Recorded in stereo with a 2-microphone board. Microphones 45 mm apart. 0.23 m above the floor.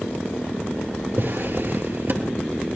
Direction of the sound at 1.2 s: 45° right (ahead or behind).